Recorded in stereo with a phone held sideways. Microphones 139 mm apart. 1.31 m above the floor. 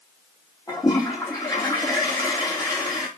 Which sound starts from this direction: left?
A toilet flushing, at 0.7 s.